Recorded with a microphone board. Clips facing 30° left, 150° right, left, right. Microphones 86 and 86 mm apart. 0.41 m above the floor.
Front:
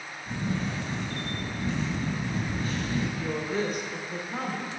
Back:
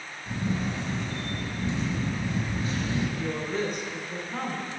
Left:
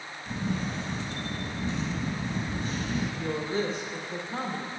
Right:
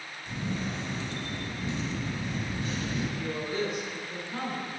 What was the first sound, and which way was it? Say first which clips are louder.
A camera shutter: back 1 dB, left 2 dB; 140° left.